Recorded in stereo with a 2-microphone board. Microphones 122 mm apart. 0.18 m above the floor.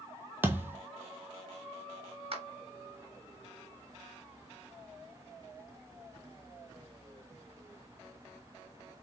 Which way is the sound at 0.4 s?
15° right (ahead or behind).